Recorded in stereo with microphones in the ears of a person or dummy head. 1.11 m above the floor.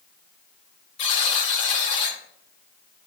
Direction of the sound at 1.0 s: 35° left (ahead or behind).